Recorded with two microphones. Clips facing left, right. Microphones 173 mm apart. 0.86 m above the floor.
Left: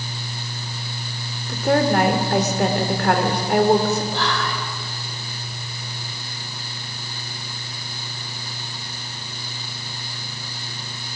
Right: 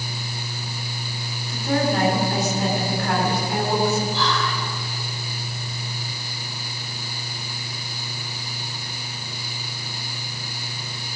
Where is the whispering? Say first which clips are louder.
Even; 70° left (ahead or behind), 3 m.